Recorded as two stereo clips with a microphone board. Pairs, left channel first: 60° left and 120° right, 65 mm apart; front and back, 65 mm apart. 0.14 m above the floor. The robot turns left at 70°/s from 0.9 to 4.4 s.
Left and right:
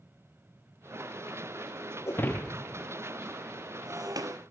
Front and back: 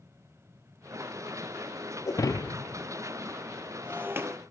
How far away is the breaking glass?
About 1.3 m.